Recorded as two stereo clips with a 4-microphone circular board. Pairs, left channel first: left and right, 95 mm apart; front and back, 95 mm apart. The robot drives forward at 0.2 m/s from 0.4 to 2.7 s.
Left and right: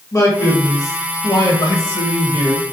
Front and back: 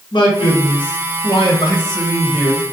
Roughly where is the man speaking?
Ahead left.